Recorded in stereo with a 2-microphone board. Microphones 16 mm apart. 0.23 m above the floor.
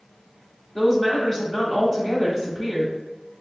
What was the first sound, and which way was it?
A woman speaking, 20° left (ahead or behind).